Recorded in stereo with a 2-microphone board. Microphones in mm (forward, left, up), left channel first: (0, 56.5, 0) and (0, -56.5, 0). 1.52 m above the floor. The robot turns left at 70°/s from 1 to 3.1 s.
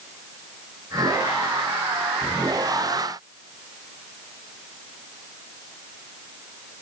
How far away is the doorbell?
No doorbell in this recording.